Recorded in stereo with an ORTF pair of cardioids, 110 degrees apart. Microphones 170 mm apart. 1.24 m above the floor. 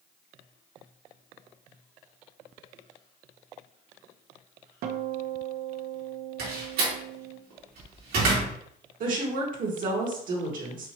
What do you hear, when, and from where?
4.8 s a guitar: 65° right, 0.7 m
6.4 s a door slam: 70° right, 2 m
9.0 s a woman speaking: 55° right, 2.0 m